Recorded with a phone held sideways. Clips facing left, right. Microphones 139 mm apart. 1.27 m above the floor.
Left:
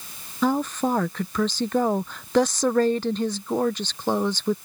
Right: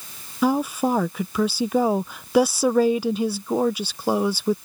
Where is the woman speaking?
10° right (ahead or behind).